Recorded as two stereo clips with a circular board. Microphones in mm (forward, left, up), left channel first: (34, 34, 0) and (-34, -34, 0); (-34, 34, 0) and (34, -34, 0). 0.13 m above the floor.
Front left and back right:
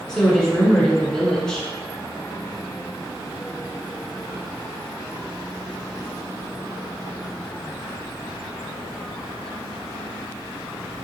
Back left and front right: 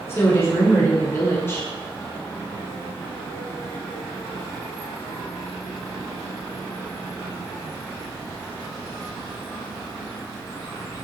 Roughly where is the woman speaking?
Behind left.